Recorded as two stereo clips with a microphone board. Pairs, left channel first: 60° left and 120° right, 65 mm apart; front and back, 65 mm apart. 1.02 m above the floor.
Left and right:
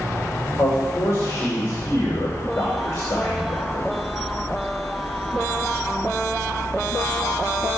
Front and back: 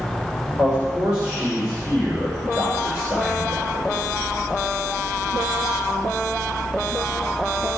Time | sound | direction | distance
0.6 | a man speaking | 105° left | 3 m